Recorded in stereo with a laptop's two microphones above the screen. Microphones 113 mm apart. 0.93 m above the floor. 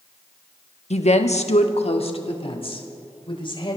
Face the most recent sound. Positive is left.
turn(degrees=50)  # may be behind; listen again after turning